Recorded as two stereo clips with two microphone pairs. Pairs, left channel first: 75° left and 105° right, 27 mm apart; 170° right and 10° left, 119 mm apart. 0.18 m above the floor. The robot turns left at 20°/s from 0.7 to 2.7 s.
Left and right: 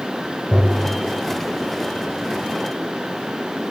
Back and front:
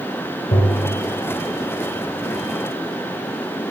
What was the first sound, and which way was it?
Tapping, 165° left.